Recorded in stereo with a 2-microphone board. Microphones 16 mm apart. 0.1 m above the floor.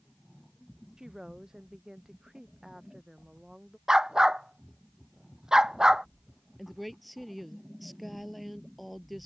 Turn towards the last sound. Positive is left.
turn(degrees=0)  # may be behind; listen again after turning